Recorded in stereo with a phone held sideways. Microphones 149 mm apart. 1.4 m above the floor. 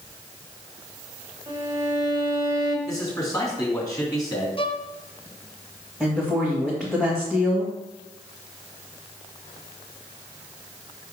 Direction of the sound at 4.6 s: 35° left (ahead or behind).